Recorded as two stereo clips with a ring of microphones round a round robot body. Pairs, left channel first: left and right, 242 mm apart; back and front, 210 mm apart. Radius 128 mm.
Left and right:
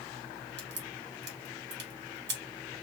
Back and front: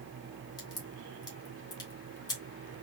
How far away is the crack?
About 1.9 m.